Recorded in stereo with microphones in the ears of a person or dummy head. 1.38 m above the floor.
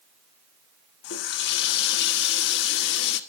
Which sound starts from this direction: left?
A running tap, at 1.0 s.